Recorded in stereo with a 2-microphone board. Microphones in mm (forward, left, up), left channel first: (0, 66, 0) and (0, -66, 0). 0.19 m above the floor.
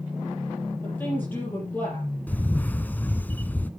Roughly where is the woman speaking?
Centre.